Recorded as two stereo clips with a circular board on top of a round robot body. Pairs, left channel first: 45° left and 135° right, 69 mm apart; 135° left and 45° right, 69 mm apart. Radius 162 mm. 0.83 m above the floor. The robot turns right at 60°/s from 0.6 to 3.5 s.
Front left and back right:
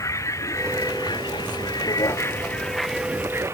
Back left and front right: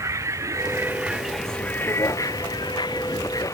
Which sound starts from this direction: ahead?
A vehicle, at 0.0 s.